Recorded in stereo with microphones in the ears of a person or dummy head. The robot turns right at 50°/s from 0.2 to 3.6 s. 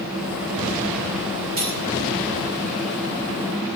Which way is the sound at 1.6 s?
60° right (ahead or behind).